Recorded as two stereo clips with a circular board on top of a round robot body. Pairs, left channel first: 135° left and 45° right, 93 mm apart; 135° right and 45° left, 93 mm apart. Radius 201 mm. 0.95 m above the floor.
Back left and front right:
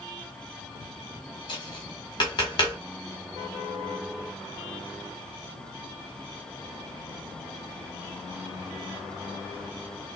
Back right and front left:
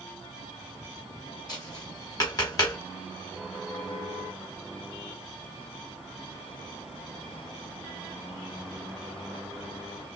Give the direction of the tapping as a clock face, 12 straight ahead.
6 o'clock.